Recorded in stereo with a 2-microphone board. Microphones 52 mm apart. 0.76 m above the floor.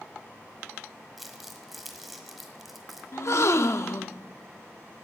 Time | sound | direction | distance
1.2 | crumpling | centre (ahead or behind) | 1.3 m
3.1 | a gasp | 65° left (ahead or behind) | 0.5 m